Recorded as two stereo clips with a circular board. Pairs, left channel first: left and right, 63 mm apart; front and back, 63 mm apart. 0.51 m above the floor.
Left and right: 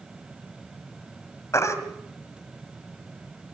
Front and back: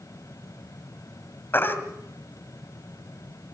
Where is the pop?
I don't hear a pop.